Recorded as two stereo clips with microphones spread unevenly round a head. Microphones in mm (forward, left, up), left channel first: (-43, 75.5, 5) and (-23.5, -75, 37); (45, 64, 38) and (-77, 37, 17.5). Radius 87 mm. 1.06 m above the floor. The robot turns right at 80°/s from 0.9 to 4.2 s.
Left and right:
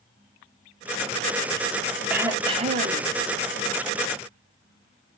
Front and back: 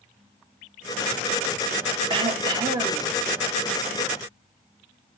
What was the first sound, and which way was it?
Throat clearing, 175° right.